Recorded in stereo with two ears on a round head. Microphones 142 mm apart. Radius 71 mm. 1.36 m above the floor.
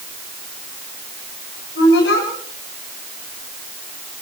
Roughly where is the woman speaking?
Left.